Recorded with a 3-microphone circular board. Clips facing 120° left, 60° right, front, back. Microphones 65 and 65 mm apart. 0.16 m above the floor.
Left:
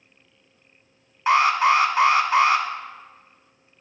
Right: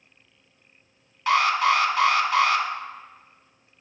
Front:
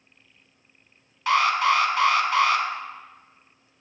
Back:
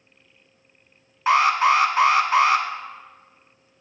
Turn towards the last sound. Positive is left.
turn(degrees=155)